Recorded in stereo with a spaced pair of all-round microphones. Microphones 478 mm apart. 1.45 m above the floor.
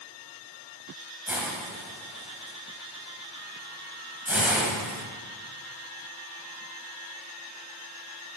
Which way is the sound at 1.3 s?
5° right (ahead or behind).